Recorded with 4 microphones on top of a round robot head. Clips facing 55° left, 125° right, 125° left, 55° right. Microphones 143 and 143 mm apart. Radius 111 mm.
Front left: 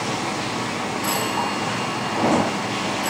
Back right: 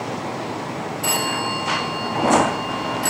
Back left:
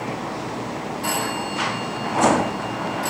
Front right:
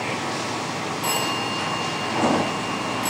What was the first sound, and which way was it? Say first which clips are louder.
A phone ringing: even, even; 120° right.